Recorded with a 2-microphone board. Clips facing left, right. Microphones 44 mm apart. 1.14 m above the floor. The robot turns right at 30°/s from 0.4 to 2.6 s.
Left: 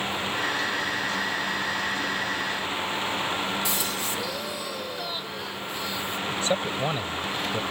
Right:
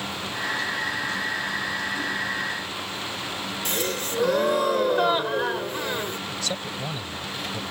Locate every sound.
3.6 s a gasp: 55° right (ahead or behind)
6.3 s a man speaking: 30° left (ahead or behind)